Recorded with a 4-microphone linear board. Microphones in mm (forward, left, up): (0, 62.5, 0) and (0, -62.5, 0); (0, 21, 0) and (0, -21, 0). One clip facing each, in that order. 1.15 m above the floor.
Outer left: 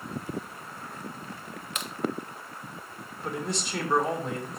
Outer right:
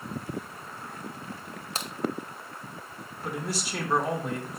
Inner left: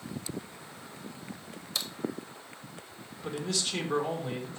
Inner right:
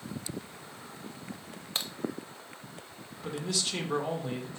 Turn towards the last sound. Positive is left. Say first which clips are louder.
# outer left 1 dB, even
turn(degrees=-5)  # may be behind; listen again after turning